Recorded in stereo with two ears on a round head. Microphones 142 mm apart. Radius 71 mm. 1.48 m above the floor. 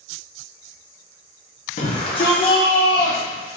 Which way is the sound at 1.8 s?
40° left (ahead or behind).